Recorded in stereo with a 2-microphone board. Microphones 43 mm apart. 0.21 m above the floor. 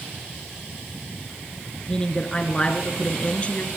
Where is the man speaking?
20° left (ahead or behind), 3.5 m; by 3.7 s 30° left (ahead or behind), 3 m.